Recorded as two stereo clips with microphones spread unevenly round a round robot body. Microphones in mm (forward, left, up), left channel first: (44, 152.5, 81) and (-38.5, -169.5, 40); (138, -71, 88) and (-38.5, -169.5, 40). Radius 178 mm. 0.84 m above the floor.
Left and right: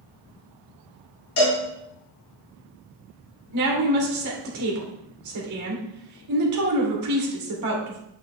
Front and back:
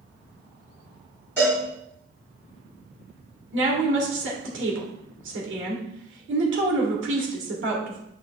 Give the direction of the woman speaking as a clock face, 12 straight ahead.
5 o'clock.